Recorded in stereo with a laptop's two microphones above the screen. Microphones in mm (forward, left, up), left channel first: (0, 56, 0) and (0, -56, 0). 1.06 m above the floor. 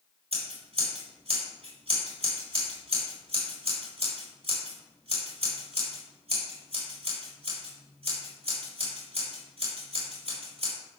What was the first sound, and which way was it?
Scissors, 65° right (ahead or behind).